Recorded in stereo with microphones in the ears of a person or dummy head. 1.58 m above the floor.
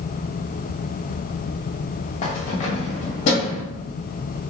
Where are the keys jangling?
35° left (ahead or behind), 1.1 m.